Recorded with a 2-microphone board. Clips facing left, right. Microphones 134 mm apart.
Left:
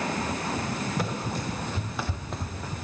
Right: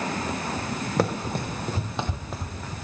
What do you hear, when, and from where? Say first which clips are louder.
1.0 s running footsteps: right 5 dB; 70° right (ahead or behind), 1.3 m; by 2.7 s 15° left (ahead or behind), 1.3 m